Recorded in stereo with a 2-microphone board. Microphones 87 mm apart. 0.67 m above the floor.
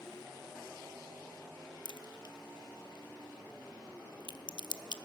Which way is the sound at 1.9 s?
65° left (ahead or behind).